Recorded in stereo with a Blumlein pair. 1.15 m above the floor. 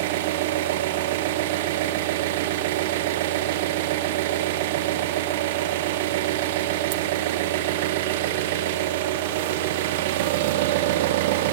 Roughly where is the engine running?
Ahead right.